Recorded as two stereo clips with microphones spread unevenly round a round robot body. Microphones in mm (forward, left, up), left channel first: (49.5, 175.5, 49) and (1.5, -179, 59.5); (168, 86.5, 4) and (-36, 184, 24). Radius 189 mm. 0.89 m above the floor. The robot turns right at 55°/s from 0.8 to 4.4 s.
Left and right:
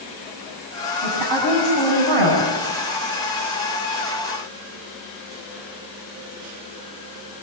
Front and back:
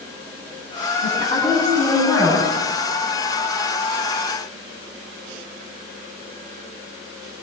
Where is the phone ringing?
I don't hear a phone ringing.